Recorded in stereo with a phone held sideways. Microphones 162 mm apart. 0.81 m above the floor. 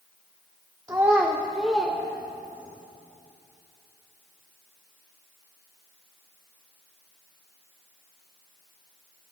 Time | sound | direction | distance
0.9 | a child speaking | 20° right (ahead or behind) | 0.9 m